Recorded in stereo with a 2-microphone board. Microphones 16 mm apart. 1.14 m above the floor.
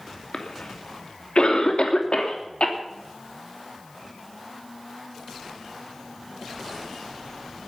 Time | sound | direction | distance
0.3 | a cough | 70° left (ahead or behind) | 3 m